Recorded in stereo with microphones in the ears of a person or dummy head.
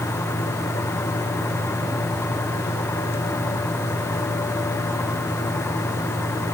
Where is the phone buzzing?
No phone buzzing in this recording.